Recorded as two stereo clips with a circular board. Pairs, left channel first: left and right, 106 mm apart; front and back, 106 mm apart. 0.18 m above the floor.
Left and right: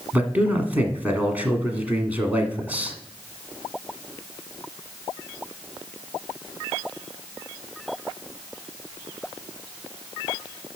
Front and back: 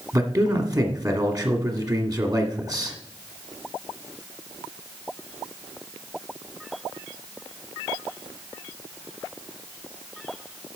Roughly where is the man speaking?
Behind right.